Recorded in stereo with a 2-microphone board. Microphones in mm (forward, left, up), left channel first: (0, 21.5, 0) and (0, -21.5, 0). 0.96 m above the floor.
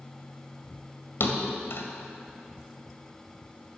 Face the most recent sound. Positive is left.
turn(degrees=65)  # may be behind; listen again after turning